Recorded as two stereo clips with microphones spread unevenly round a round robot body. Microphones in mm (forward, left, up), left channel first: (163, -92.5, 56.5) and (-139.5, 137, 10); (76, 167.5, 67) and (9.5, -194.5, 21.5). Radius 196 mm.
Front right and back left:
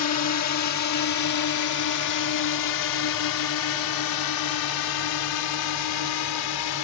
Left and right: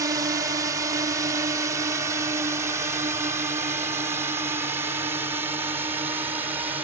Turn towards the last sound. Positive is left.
turn(degrees=-20)